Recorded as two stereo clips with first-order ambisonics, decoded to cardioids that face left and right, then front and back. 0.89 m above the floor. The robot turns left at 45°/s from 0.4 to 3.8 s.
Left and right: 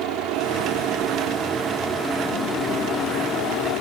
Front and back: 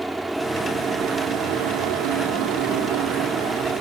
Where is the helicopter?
95° right; by 3.8 s 115° left.